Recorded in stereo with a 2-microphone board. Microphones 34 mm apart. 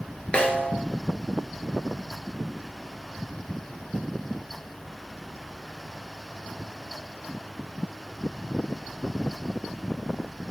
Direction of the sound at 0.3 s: 35° left (ahead or behind).